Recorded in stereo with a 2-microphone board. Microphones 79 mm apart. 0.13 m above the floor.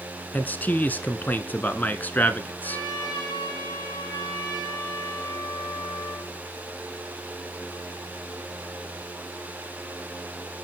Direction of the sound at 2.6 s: 70° left (ahead or behind).